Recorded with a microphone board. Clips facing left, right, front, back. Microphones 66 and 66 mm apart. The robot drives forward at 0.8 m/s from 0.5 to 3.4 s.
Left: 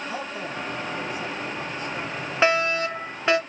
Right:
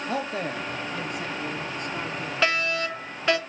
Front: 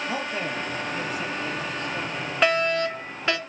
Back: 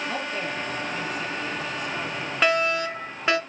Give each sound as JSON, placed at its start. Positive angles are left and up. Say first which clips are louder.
{"t": 0.1, "sound": "a man speaking", "louder": "right 3 dB, front 1 dB", "azimuth_deg": -75, "distance_m": 3.0}
{"t": 2.4, "sound": "a fire alarm", "louder": "left 4 dB, front 1 dB", "azimuth_deg": 90, "distance_m": 2.0}